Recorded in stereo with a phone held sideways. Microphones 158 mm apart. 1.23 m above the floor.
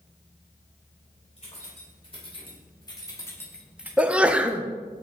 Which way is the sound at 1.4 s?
40° left (ahead or behind).